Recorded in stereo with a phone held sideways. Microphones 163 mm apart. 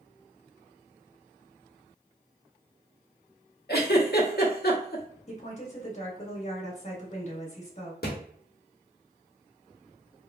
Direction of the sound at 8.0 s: 80° left.